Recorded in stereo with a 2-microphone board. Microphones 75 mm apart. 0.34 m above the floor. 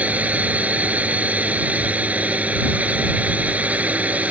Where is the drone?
20° right (ahead or behind).